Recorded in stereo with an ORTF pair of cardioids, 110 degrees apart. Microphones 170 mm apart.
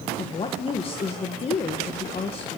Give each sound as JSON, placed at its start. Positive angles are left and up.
{"t": 0.2, "sound": "a woman speaking", "azimuth_deg": 35, "distance_m": 2.0}